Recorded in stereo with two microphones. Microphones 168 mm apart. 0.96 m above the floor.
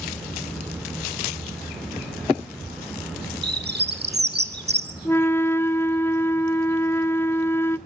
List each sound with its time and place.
3.4 s a bird: 70° right (ahead or behind), 2 m
5.0 s a flute: 15° left (ahead or behind), 0.6 m